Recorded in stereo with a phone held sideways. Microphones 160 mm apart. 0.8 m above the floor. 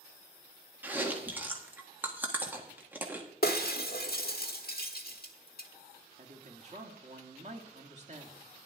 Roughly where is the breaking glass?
Left.